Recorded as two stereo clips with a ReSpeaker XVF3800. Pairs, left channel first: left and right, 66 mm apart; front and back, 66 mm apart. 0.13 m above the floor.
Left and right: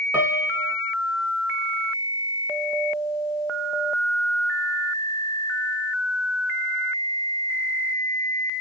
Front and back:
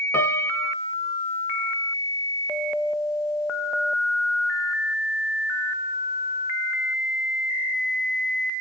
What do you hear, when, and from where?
0.1 s a piano: 45° right, 0.9 m